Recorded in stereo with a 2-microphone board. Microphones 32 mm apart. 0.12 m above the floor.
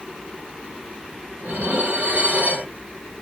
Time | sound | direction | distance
1.4 | dishes clattering | 45° right (ahead or behind) | 1.3 m